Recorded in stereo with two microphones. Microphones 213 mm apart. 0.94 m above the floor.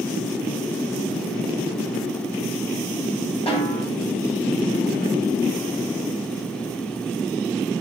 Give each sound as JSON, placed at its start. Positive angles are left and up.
{"t": 3.5, "sound": "a snare drum", "side_deg": 25, "distance_m": 2.5}